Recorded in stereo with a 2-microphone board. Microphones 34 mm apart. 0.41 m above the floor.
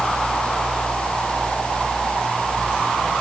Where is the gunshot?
No gunshot in this recording.